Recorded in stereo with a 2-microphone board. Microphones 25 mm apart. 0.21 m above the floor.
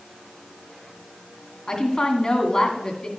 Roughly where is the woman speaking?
Left.